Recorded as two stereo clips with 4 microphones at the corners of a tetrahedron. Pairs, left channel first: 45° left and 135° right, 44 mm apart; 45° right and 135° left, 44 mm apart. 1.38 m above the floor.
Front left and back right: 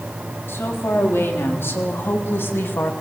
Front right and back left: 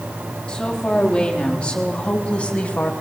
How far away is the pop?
I don't hear a pop.